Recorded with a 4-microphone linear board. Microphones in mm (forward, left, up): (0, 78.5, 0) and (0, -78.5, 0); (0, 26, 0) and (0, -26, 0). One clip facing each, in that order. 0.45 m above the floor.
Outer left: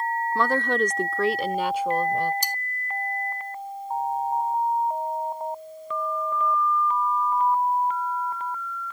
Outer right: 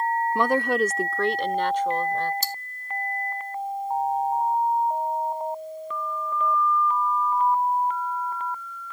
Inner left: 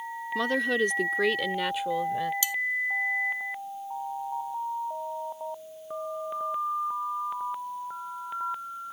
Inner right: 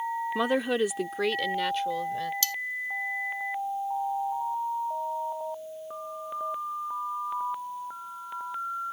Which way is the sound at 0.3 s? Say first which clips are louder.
Outer right 1 dB, inner left 1 dB; 15° right (ahead or behind).